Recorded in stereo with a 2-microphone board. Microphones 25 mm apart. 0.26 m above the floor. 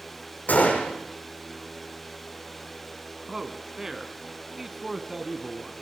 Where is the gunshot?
85° left, 9 m.